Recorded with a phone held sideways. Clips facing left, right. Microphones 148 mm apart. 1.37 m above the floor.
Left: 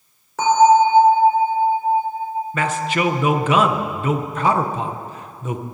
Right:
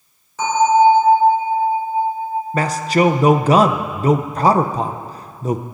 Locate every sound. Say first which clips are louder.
0.4 s a bell: left 1 dB; 75° left (ahead or behind), 4 m
2.5 s a man speaking: right 5 dB; 35° right (ahead or behind), 0.7 m